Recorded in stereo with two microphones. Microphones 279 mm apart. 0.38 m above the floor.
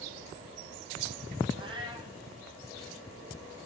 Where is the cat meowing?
20° right (ahead or behind), 1.3 m.